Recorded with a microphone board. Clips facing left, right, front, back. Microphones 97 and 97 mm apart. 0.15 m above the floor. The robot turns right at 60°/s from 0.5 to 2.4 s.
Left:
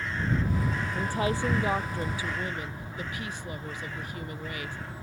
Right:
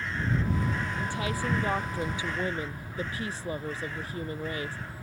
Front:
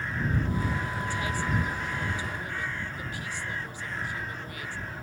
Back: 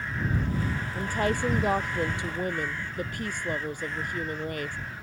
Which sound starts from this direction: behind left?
A woman speaking, at 0.9 s.